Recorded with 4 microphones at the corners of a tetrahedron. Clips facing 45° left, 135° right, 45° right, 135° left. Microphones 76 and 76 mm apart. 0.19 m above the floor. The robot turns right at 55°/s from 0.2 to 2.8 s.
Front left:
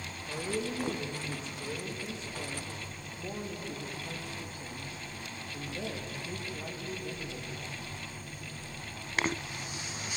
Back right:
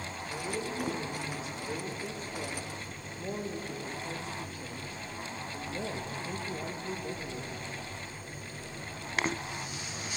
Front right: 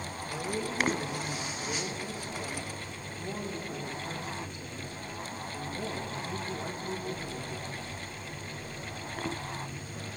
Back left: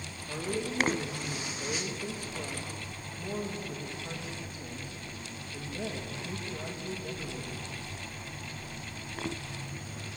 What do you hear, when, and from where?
0.3 s a woman speaking: 80° left, 6.5 m; by 7.7 s 145° right, 6.5 m